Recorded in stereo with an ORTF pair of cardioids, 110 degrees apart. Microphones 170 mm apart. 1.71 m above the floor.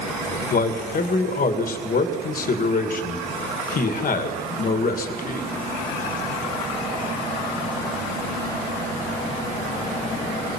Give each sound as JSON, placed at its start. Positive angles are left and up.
{"t": 0.5, "sound": "a man speaking", "azimuth_deg": 55, "distance_m": 2.5}